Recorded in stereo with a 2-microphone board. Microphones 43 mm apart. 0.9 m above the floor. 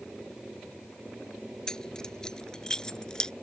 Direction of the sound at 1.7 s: 15° left (ahead or behind).